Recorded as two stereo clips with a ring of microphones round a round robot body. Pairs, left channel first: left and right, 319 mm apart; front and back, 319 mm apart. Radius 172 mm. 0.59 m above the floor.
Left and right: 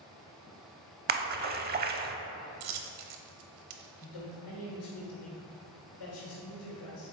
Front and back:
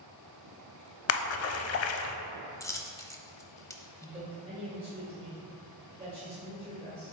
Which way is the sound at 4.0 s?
100° left.